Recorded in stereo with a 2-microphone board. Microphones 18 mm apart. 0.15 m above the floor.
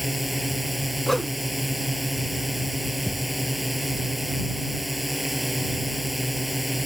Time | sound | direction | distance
0.0 | a drone | 5° right (ahead or behind) | ?
1.1 | a whoosh | 15° left (ahead or behind) | ?
3.1 | a thud | 70° left (ahead or behind) | ?